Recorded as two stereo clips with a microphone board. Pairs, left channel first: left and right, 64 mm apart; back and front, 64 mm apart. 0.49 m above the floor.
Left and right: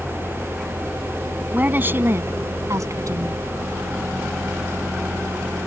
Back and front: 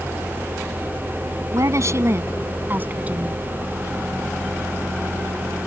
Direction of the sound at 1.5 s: 30° right.